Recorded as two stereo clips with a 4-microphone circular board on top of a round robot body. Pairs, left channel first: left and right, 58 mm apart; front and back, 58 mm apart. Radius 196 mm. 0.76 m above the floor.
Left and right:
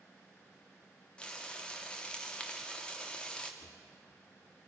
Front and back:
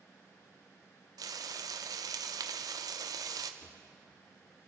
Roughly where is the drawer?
Ahead left.